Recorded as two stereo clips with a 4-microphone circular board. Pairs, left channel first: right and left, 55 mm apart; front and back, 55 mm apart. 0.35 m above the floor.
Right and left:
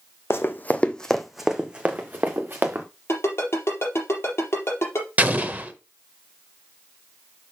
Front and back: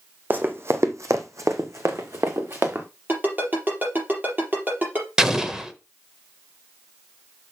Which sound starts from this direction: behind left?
An explosion, at 5.2 s.